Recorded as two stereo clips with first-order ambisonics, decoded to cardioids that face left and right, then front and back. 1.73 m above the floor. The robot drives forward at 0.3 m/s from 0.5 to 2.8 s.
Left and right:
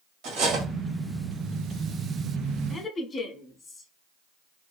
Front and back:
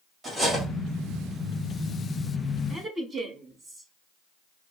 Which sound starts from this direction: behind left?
A woman speaking, at 2.7 s.